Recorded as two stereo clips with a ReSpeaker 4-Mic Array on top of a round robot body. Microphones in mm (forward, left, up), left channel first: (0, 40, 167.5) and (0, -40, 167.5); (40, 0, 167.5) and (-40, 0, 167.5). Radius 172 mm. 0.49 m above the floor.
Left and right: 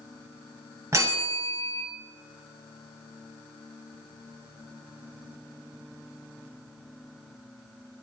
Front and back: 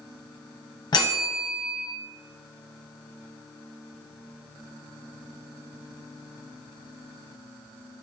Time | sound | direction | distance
0.9 | a bell | 35° right | 0.7 m